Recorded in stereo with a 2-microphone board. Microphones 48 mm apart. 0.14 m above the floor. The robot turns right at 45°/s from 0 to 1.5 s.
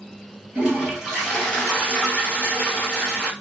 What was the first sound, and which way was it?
A toilet flushing, 35° right.